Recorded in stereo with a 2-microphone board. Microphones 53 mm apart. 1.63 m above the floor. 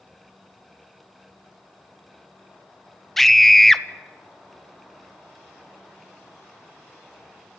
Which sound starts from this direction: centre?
A scream, at 3.2 s.